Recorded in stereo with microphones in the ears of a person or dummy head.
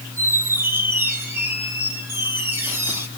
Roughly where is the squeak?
Centre.